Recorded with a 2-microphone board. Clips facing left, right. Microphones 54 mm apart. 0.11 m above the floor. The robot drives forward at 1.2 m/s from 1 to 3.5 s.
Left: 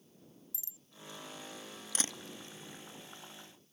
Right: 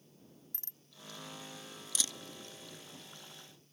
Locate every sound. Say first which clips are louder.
0.5 s a bicycle bell: left 1 dB; 50° right (ahead or behind)
1.9 s a camera shutter: left 2 dB; 45° left (ahead or behind); by 2.2 s 30° left (ahead or behind)